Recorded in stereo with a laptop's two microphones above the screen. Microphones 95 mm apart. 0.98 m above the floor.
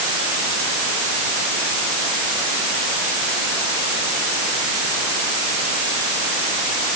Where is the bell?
No bell in this recording.